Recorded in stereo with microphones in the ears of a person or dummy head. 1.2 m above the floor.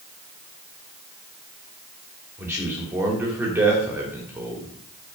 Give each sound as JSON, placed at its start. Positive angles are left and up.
{"t": 2.4, "sound": "a man speaking", "side_deg": -20, "distance_m": 3.0}